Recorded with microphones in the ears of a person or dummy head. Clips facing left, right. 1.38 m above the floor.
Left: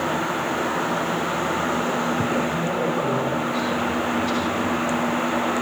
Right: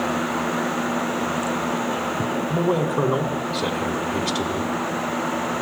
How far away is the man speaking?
About 3 m.